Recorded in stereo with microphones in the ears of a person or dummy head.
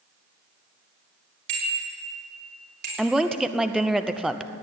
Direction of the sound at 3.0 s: Centre (ahead or behind).